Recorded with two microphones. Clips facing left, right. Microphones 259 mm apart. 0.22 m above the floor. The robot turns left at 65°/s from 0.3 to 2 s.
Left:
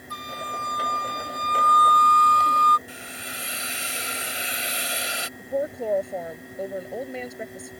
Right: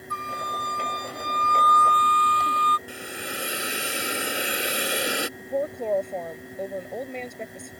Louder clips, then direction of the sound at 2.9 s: Right 5 dB; 70° right (ahead or behind).